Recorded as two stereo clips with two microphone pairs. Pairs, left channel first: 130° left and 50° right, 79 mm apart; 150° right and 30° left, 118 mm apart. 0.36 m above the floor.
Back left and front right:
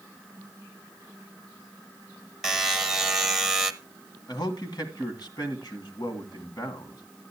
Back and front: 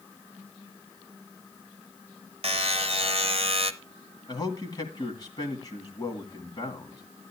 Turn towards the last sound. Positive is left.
turn(degrees=155)